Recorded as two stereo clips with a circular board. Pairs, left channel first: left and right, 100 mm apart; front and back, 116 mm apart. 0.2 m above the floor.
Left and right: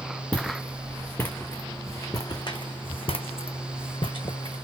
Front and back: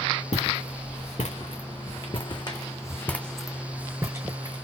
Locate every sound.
0.3 s footsteps: 15° left, 1.7 m; by 4.7 s 130° left, 1.0 m